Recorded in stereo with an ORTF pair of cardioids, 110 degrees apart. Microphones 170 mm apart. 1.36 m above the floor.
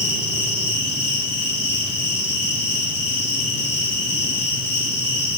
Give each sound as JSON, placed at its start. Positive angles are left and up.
{"t": 0.0, "sound": "an insect", "azimuth_deg": 40, "distance_m": 3.5}